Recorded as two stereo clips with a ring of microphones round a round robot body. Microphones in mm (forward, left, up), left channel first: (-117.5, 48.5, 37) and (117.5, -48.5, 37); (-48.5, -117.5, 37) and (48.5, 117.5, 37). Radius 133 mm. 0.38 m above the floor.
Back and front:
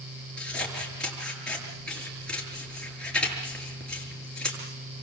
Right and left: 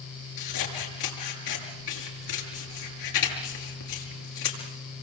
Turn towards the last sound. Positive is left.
turn(degrees=-115)